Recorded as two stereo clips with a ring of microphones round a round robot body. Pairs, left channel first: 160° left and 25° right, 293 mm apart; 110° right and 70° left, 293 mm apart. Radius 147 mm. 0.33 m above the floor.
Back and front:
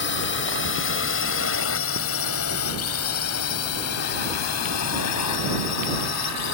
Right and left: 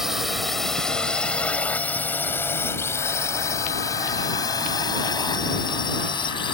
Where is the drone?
155° left; by 6.5 s 175° left.